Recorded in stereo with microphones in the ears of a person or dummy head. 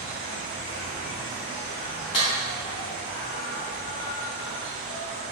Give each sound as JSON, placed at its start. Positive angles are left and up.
{"t": 0.0, "sound": "an insect", "side_deg": 65, "distance_m": 1.1}
{"t": 2.1, "sound": "a clap", "side_deg": 30, "distance_m": 1.3}